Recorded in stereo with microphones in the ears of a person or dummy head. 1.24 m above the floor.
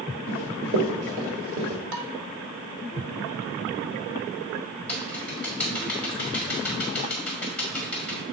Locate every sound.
0.3 s running footsteps: 40° right (ahead or behind), 1.5 m
1.9 s dishes clattering: 70° right (ahead or behind), 1.1 m
4.9 s typing on a keyboard: 5° left (ahead or behind), 1.9 m